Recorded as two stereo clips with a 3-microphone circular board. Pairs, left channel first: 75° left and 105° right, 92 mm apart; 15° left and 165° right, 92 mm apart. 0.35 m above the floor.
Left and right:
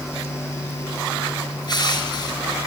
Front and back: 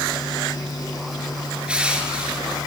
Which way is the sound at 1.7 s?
115° left.